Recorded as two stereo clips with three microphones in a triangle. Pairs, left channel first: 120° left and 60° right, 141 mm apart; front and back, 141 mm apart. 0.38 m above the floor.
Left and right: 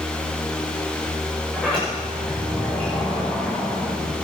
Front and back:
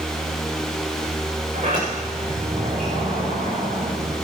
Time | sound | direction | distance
1.5 | a sliding door | 160° right | 8 m